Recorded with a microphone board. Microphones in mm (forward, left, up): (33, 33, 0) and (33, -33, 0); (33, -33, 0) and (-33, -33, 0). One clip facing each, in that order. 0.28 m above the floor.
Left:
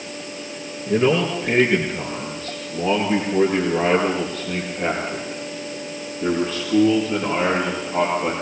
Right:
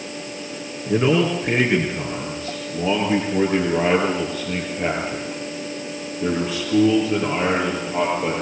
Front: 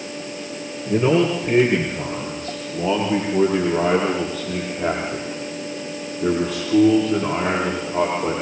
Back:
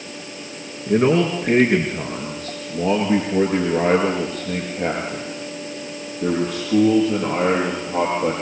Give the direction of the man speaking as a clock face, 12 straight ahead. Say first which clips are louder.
Even, back 1 dB; 6 o'clock.